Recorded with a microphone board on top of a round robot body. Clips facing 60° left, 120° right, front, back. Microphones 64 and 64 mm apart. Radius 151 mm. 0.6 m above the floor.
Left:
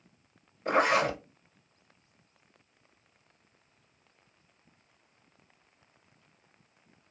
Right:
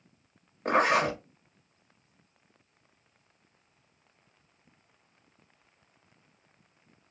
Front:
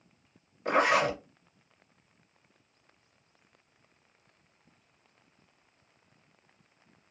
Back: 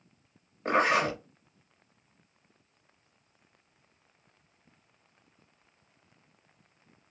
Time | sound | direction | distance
0.7 | a zipper | 130° right | 1.5 m